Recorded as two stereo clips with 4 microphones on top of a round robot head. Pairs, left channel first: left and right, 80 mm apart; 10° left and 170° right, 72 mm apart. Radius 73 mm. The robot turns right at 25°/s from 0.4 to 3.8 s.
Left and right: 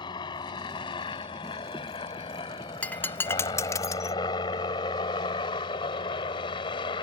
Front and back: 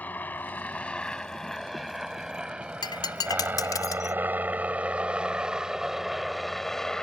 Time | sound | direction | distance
0.0 | a helicopter | 75° left | ?
2.8 | breaking glass | 20° left | ?